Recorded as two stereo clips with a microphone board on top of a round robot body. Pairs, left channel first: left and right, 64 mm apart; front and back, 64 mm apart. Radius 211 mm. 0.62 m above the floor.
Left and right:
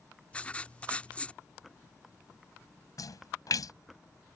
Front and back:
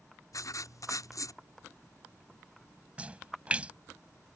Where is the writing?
20° left.